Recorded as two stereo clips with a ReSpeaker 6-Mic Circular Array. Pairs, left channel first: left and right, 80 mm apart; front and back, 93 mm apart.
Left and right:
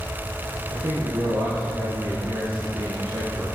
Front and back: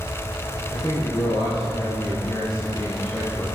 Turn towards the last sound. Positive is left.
turn(degrees=-90)